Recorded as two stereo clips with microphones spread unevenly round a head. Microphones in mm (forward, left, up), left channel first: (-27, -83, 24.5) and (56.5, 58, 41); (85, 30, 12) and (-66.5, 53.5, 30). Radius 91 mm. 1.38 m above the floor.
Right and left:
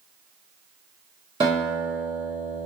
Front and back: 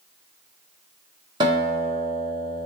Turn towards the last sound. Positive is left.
turn(degrees=120)